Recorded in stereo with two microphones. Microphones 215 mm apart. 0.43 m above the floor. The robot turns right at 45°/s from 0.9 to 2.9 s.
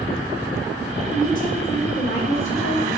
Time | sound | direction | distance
1.1 | a woman speaking | 30° left | 3.5 m